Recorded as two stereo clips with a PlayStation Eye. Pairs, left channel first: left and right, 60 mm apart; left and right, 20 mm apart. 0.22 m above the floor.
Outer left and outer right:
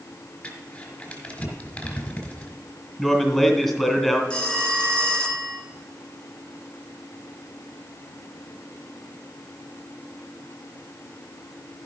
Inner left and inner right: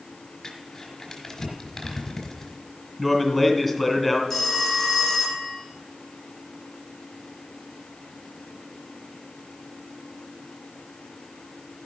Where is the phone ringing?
15° left (ahead or behind), 2.5 m.